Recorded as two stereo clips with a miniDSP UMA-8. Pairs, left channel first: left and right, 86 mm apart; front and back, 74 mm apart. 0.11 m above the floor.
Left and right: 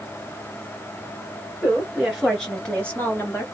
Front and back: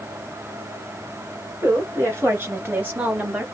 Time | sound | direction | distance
1.6 | a woman speaking | 165° right | 2 m